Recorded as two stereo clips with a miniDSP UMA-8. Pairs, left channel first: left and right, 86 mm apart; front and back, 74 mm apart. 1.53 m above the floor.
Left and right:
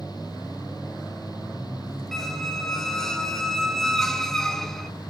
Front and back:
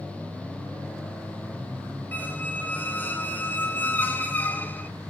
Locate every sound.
2.1 s a squeak: 15° left, 1.3 m